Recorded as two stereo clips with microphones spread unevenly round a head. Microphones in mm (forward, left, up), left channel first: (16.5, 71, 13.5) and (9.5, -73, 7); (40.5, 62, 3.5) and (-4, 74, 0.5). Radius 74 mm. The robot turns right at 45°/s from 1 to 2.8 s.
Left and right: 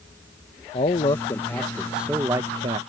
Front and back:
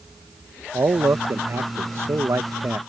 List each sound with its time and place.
0.7 s a man speaking: 140° left; by 2.8 s 140° right